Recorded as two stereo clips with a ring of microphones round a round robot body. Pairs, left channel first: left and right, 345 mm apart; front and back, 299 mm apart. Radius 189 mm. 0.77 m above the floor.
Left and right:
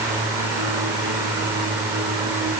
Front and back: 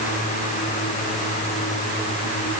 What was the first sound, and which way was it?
Only background noise.